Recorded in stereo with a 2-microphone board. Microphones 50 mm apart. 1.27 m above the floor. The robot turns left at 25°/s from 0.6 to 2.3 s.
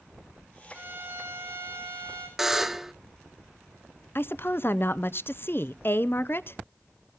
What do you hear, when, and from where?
0.7 s a violin: 35° right, 4.5 m; by 2.3 s 75° right, 4.5 m
2.4 s a buzzer: 5° right (ahead or behind), 0.6 m
4.2 s a woman speaking: 50° left (ahead or behind), 0.5 m